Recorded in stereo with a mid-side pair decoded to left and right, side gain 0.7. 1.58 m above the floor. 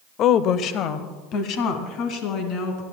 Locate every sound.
0.2 s a woman speaking: 50° left, 0.6 m; by 2.8 s 60° left, 3 m